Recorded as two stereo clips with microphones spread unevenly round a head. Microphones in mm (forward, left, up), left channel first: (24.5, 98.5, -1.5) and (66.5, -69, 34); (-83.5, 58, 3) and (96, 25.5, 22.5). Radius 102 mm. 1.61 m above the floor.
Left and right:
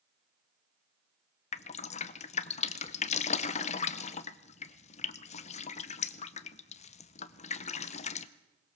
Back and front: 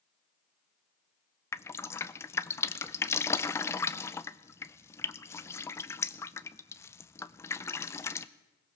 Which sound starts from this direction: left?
Dripping, at 1.5 s.